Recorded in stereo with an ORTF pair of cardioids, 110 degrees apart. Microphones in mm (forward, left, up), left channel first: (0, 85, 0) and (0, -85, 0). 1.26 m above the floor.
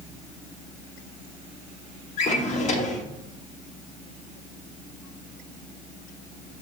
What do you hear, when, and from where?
2.2 s a drawer: 45° left, 0.9 m